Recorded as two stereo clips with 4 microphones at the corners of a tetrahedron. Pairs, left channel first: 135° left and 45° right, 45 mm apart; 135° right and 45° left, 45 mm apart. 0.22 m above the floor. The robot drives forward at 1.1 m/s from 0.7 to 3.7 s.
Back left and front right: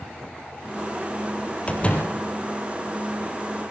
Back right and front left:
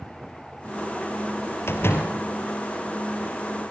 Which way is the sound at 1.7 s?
165° right.